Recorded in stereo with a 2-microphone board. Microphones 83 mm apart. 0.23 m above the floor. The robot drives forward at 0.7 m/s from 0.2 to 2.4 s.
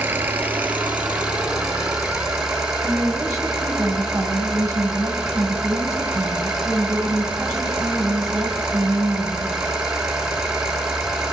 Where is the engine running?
25° right (ahead or behind), 1.0 m; by 11.3 s 10° right (ahead or behind), 2.5 m.